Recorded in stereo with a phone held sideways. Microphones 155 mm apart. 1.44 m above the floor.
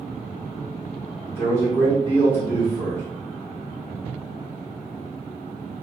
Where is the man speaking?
15° left (ahead or behind), 1.6 m.